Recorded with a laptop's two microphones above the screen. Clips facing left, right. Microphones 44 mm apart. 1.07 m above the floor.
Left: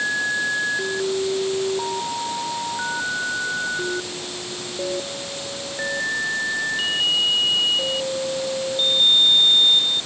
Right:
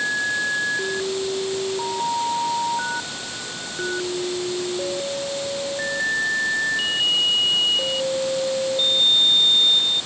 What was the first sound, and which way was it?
Only background noise.